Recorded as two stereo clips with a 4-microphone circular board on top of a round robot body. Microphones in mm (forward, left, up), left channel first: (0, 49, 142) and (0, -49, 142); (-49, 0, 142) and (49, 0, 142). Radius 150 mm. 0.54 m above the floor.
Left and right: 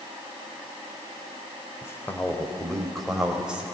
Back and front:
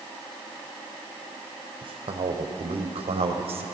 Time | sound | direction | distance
1.8 | a man speaking | 25° left | 3 m